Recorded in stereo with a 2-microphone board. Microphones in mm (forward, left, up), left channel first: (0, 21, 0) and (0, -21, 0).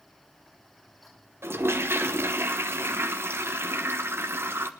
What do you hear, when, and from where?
1.4 s a toilet flushing: 85° right, 1.1 m